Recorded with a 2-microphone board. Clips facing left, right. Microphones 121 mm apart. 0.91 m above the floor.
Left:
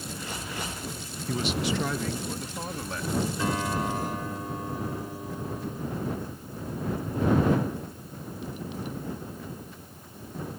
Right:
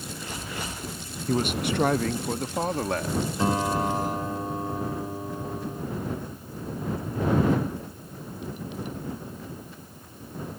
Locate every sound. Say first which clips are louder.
1.3 s a man speaking: right 3 dB; 45° right (ahead or behind); by 3.2 s 70° right (ahead or behind)
3.4 s a guitar: right 4 dB; 30° right (ahead or behind)